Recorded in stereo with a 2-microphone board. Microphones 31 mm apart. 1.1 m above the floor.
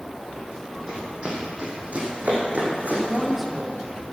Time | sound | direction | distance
0.9 | running footsteps | 30° right (ahead or behind) | 3 m
2.9 | a woman speaking | centre (ahead or behind) | 1.8 m